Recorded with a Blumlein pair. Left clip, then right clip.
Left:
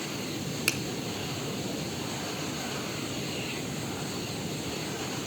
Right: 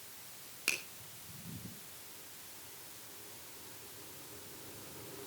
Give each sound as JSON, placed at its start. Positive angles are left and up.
{"t": 0.7, "sound": "a finger snap", "azimuth_deg": 70, "distance_m": 2.5}